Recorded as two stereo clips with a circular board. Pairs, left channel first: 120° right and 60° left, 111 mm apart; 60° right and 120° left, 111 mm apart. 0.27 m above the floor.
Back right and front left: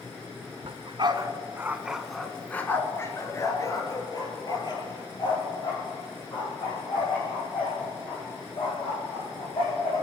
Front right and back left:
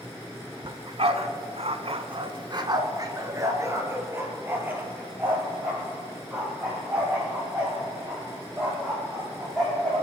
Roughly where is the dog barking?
Left.